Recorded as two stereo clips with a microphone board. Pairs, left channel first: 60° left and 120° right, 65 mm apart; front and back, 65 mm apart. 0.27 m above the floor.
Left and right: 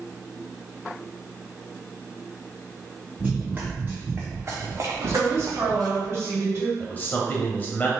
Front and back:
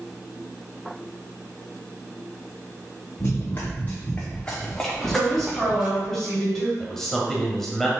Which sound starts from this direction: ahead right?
Running footsteps, at 3.2 s.